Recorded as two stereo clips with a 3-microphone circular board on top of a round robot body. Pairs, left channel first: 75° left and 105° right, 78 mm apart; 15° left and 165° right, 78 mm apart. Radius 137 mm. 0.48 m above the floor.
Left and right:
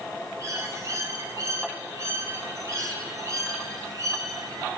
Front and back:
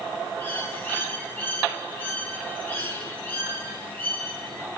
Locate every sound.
0.4 s a bird: 55° right, 5 m